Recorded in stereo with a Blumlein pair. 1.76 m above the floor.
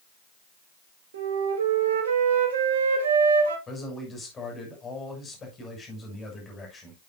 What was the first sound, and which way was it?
A flute, 60° right.